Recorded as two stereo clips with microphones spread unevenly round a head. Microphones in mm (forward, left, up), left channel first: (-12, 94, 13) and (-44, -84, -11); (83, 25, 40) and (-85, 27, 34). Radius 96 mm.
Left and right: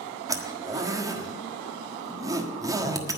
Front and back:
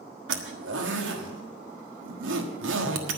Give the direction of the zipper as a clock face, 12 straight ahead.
6 o'clock.